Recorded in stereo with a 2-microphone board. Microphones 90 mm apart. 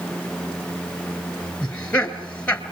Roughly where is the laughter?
Centre.